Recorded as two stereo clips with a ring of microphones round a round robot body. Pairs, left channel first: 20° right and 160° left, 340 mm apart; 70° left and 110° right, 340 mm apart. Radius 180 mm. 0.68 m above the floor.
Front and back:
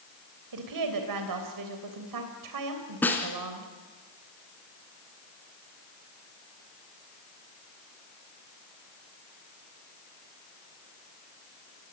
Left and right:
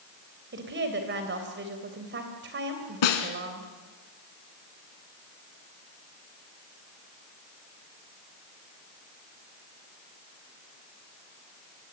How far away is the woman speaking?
About 3 m.